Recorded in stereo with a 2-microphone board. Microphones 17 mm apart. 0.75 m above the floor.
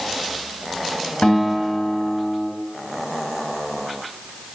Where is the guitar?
85° left, 2.5 m.